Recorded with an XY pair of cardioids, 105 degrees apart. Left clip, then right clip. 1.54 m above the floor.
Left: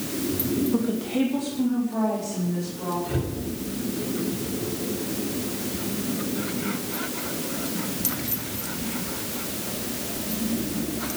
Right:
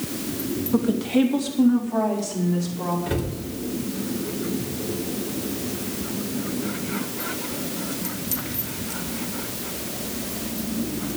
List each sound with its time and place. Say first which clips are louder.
0.7 s a woman speaking: right 4 dB; 30° right, 3 m; by 3.0 s 55° right, 5.5 m
3.1 s a cupboard door: right 2 dB; 70° right, 5.5 m